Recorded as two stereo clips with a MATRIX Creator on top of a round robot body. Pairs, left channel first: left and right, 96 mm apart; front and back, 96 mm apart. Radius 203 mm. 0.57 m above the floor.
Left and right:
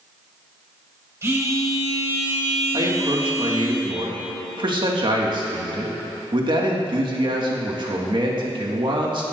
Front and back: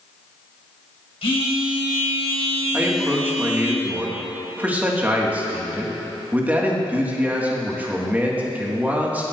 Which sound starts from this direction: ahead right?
A phone buzzing, at 1.2 s.